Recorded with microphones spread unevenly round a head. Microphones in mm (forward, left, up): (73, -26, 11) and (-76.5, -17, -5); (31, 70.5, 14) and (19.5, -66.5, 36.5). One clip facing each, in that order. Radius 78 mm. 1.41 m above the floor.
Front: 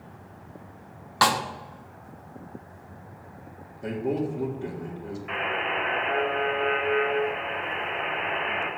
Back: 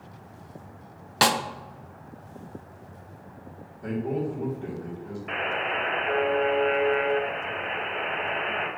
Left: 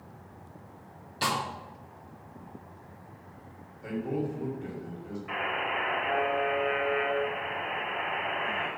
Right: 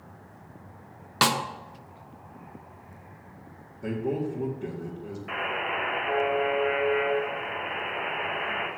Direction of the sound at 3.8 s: 70° right.